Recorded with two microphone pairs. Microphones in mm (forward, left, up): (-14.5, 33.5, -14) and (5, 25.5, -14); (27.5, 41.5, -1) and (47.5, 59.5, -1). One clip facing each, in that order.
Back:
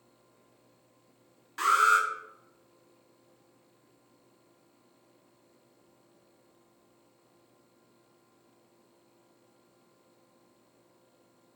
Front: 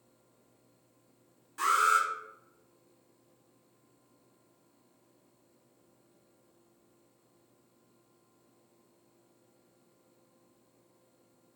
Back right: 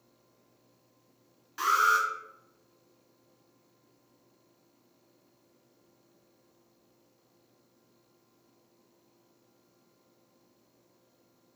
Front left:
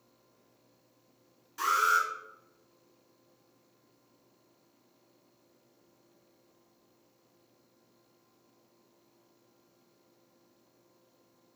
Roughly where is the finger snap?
I don't hear a finger snap.